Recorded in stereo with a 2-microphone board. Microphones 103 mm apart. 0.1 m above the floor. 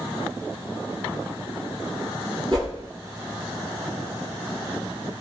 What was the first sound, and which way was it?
A whoosh, 45° right (ahead or behind).